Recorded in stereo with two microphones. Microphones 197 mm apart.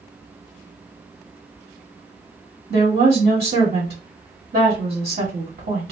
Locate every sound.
2.7 s a woman speaking: 55° right (ahead or behind), 1.6 m